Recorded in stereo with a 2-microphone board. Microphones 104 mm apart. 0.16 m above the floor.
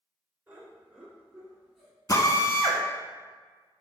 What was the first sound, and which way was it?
Laughter, 15° right (ahead or behind).